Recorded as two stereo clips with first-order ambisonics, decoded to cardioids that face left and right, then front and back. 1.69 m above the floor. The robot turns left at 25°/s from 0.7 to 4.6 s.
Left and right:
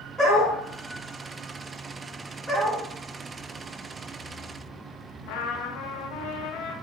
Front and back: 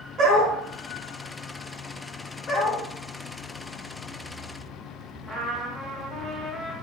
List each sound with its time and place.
0.2 s a dog barking: 160° right, 1.6 m
2.5 s a dog barking: 10° right, 1.2 m; by 2.8 s 20° right, 1.2 m
5.3 s a trumpet: 95° left, 0.6 m